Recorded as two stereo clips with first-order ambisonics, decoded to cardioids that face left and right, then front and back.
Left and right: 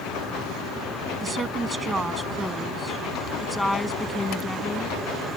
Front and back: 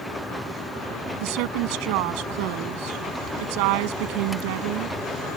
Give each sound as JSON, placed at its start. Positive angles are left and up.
{"t": 1.2, "sound": "a woman speaking", "azimuth_deg": -165}